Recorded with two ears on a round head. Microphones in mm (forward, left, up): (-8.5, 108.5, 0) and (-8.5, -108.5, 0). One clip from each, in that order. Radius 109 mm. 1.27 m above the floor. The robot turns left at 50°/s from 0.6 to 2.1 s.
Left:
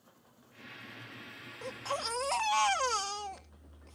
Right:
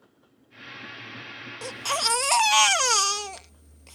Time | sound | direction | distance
1.6 | a baby crying | 70° right (ahead or behind) | ?